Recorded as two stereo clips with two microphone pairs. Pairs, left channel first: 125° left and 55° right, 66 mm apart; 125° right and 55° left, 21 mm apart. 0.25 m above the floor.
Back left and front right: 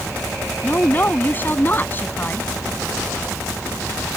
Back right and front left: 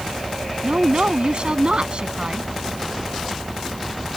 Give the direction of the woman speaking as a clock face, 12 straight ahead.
9 o'clock.